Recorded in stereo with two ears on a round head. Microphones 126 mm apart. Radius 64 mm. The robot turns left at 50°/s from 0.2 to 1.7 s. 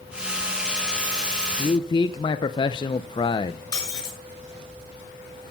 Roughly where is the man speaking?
Left.